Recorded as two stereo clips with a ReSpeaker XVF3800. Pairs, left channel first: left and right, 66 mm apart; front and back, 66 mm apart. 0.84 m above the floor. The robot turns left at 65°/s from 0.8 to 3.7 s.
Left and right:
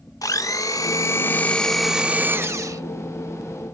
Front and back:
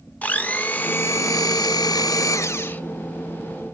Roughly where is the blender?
Ahead left.